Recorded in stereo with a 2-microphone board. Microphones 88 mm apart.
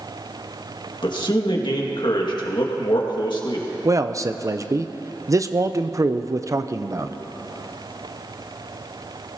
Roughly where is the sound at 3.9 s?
Right.